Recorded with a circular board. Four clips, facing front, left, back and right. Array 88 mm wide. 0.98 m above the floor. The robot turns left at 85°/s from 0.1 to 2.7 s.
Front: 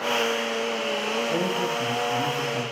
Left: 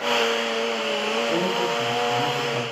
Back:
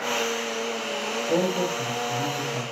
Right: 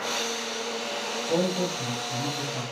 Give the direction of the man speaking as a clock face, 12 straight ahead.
5 o'clock.